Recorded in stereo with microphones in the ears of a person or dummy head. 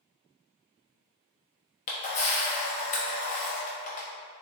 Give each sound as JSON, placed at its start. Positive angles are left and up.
{"t": 1.9, "sound": "a camera shutter", "side_deg": 40, "distance_m": 0.9}